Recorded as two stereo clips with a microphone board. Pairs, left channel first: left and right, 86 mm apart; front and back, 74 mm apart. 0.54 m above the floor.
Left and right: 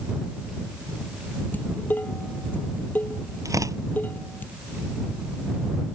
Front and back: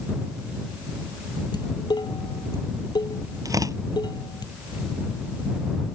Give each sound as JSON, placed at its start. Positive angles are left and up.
{"t": 1.5, "sound": "dishes clattering", "azimuth_deg": 20}
{"t": 3.5, "sound": "tearing paper", "azimuth_deg": -140}